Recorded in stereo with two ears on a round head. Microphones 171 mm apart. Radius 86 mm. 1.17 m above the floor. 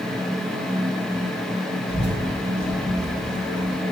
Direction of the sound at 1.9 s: 75° left (ahead or behind).